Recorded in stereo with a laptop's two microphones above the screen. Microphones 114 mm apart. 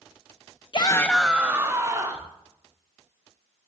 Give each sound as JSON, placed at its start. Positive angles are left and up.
{"t": 0.7, "sound": "a shout", "side_deg": 50, "distance_m": 0.8}